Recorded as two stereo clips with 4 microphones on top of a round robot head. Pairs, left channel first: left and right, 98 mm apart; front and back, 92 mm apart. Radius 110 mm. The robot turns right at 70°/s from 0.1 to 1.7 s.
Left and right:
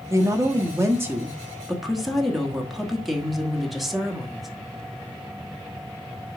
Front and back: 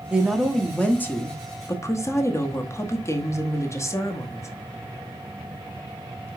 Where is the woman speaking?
115° right, 1.2 m; by 4.5 s 5° right, 1.2 m.